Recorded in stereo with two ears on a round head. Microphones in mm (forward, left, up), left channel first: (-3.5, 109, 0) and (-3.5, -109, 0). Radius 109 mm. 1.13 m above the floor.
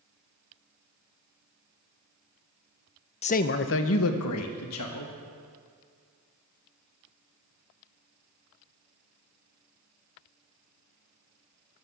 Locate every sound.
3.2 s a man speaking: 25° left (ahead or behind), 0.5 m; by 5.1 s 80° left, 1.6 m